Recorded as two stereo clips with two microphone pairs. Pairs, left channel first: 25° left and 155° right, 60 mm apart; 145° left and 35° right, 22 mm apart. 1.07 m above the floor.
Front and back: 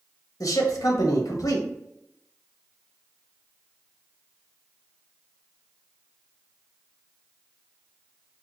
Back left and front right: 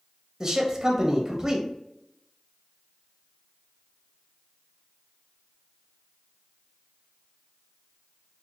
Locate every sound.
0.4 s a man speaking: 30° left, 0.9 m